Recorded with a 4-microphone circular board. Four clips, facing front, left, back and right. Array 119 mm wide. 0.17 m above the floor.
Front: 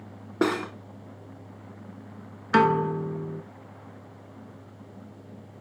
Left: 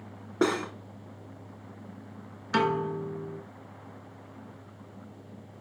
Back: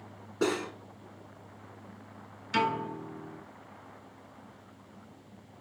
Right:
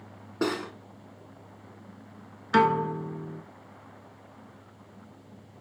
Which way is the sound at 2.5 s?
15° right.